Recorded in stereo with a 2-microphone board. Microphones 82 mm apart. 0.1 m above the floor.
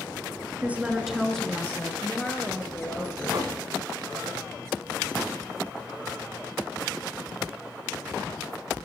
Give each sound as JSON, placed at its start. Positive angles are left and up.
{"t": 0.6, "sound": "a woman speaking", "side_deg": -20, "distance_m": 1.4}
{"t": 2.0, "sound": "a woman speaking", "side_deg": 15, "distance_m": 1.5}
{"t": 3.3, "sound": "knocking", "side_deg": -65, "distance_m": 2.5}